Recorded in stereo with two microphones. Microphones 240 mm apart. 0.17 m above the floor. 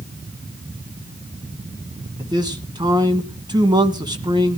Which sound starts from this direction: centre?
A man speaking, at 2.2 s.